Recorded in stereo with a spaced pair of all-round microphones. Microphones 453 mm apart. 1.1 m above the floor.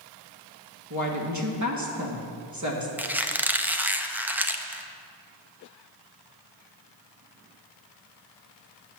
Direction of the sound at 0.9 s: 35° right (ahead or behind).